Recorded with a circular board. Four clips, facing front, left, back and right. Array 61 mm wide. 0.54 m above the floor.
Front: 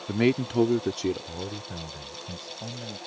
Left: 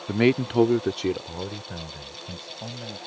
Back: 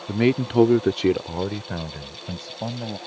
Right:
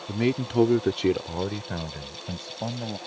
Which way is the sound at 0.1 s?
85° left.